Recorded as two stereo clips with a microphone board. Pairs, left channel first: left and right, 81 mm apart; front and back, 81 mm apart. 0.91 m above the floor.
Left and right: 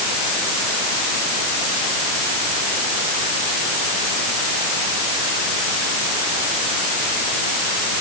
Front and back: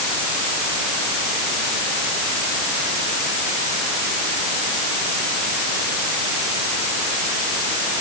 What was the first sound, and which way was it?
Only background noise.